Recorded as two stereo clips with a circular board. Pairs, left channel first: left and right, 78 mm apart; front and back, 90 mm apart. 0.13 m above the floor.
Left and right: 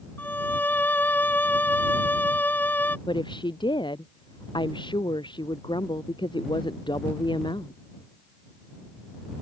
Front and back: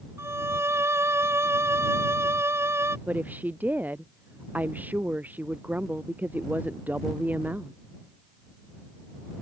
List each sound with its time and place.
0.2 s a violin: 140° left
3.1 s a woman speaking: 110° left